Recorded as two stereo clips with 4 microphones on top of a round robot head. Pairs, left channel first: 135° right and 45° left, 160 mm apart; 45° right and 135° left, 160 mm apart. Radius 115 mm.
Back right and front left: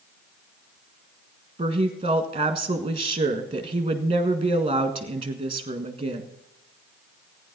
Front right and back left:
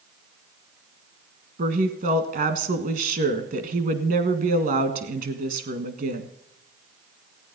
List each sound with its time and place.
1.6 s a woman speaking: 105° left, 1.7 m